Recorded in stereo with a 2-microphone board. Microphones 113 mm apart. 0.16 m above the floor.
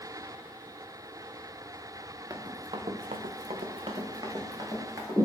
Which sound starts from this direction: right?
Running footsteps, at 2.3 s.